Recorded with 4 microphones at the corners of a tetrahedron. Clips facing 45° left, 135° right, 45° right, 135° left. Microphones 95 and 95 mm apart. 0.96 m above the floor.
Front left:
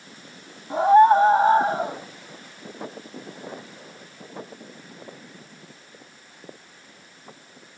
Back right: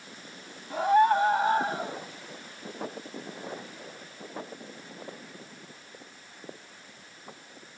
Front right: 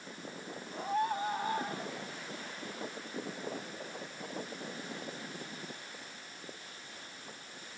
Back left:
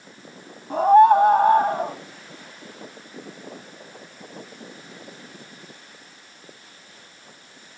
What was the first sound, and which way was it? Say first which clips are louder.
A scream: front left 8 dB, back left 21 dB; 105° left.